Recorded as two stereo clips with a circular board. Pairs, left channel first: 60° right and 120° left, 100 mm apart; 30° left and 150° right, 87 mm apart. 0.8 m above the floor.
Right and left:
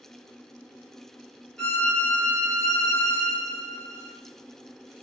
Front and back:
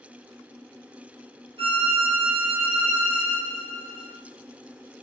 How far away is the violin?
About 0.5 m.